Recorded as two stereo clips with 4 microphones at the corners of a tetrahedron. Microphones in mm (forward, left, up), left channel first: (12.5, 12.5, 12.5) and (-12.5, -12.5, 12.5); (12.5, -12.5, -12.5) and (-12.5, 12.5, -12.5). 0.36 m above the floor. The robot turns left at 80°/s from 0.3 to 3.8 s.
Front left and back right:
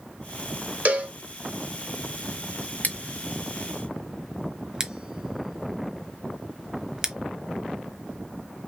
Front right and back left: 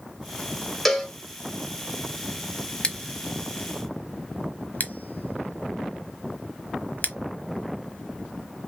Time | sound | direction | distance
0.8 | a cowbell | 130° right | 1.5 m
2.8 | scissors | 10° left | 1.0 m